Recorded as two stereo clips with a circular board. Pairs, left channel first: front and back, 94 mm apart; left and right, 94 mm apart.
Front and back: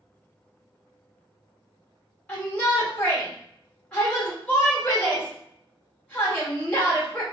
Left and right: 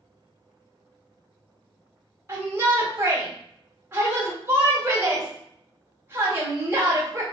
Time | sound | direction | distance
2.3 | a shout | 60° right | 1.2 m